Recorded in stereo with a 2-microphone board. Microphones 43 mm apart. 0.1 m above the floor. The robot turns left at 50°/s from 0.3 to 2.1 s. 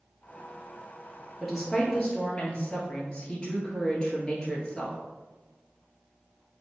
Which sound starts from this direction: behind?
A woman speaking, at 1.4 s.